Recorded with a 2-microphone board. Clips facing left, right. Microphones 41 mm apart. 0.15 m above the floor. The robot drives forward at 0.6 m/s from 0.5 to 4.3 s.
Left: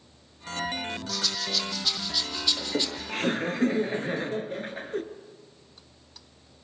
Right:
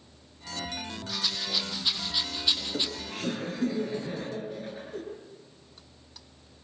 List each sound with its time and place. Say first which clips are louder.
1.1 s a rattle: right 1 dB; 15° right (ahead or behind), 4 m; by 2.9 s 20° right (ahead or behind), 3 m
2.6 s laughter: left 3 dB; 45° left (ahead or behind), 3 m; by 5.0 s 55° left (ahead or behind), 2.5 m